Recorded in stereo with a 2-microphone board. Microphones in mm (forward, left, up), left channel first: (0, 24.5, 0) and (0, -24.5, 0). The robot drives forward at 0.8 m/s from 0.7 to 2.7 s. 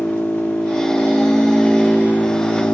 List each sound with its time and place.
0.0 s an engine running: 15° left (ahead or behind), 2.5 m; by 2.8 s 45° left (ahead or behind), 1.0 m